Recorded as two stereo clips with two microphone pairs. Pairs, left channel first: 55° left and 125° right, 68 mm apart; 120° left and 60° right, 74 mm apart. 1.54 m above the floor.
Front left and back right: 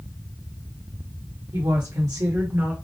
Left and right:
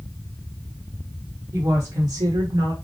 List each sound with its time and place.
1.5 s a woman speaking: 115° right, 1.4 m; by 2.7 s 60° right, 1.1 m